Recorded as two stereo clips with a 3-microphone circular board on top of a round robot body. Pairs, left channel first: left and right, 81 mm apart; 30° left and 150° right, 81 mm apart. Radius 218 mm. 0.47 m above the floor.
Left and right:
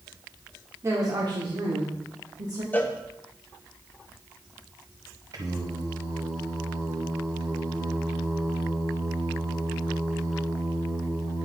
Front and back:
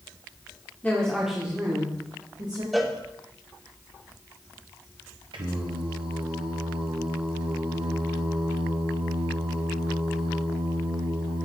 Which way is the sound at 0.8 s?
40° right.